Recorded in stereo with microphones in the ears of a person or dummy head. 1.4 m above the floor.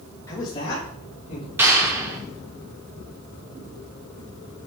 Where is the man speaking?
15° left (ahead or behind), 1.7 m; by 1.5 s 40° left (ahead or behind), 3 m.